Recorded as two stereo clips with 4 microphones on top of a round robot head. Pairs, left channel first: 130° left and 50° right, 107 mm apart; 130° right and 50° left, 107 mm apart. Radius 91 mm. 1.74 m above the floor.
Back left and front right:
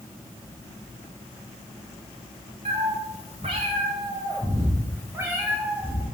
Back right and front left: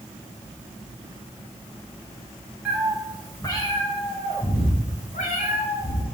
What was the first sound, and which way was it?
A cat meowing, 30° right.